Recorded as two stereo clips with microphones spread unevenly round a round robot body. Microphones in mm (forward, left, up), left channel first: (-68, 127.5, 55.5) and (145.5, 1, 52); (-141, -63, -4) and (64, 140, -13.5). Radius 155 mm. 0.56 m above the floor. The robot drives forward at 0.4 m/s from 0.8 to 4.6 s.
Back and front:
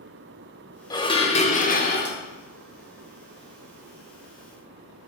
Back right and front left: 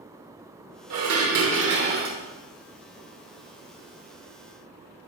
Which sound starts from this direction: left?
Dishes clattering, at 0.9 s.